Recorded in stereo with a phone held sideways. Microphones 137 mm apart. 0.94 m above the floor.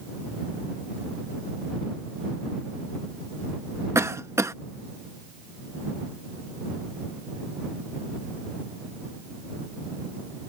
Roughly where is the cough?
Right.